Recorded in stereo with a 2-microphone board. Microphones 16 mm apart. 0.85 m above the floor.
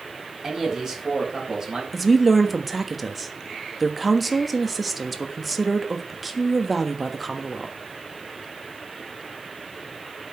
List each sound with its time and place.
0.4 s a man speaking: 25° right (ahead or behind), 5 m; by 1.8 s 35° right (ahead or behind), 4.5 m
1.9 s a woman speaking: centre (ahead or behind), 1.3 m